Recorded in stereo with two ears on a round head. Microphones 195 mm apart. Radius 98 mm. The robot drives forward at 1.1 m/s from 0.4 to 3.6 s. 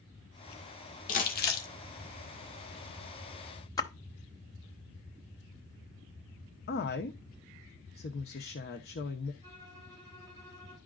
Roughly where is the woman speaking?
Left.